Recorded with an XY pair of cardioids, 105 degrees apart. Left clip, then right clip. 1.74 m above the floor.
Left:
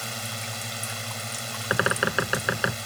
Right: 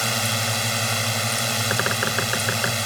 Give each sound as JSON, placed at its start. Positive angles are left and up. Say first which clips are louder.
{"t": 0.0, "sound": "a drone", "louder": "right 10 dB", "azimuth_deg": -65}
{"t": 1.7, "sound": "a bird", "louder": "left 4 dB", "azimuth_deg": 5}